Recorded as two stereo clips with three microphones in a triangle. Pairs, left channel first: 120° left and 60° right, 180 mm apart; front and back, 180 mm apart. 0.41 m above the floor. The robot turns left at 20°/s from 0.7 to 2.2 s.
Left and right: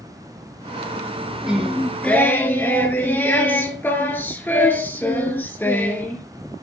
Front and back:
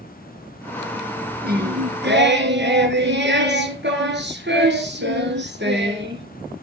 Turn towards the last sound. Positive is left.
turn(degrees=-160)